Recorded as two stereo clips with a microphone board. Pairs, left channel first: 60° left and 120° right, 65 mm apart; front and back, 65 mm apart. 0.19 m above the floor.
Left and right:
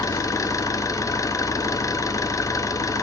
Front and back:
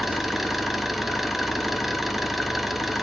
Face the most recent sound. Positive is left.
turn(degrees=95)